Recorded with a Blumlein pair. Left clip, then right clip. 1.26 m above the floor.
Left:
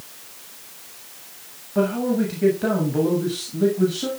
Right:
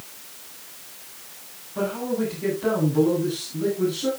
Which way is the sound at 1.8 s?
60° left.